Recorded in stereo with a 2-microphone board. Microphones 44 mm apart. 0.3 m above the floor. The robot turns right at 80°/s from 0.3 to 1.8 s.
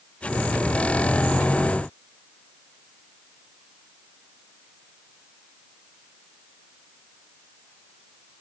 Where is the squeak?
No squeak in this recording.